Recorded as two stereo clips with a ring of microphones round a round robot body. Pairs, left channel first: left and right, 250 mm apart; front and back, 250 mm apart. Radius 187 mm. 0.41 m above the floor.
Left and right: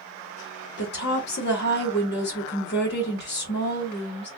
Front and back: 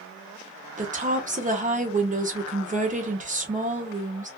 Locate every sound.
0.8 s a woman speaking: 125° left, 1.3 m